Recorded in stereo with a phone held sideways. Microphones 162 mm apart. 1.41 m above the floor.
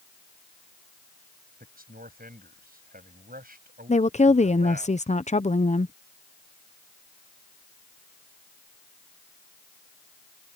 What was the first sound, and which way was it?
A man speaking, 65° right (ahead or behind).